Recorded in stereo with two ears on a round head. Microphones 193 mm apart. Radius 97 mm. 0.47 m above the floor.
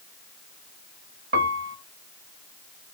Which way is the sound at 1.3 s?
50° right (ahead or behind).